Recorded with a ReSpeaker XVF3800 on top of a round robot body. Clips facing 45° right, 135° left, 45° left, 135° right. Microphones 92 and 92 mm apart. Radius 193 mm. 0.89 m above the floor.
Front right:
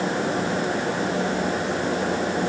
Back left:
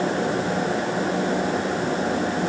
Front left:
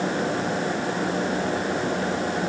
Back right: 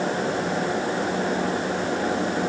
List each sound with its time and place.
Only background noise.